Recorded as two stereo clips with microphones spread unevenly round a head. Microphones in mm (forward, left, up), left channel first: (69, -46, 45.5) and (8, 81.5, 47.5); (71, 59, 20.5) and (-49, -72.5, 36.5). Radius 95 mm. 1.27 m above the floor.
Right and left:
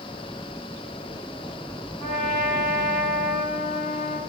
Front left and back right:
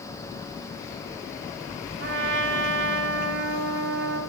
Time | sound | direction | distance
2.0 | a trumpet | 125° right | 2 m